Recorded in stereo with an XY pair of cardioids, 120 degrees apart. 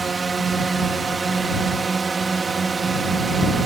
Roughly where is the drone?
Ahead.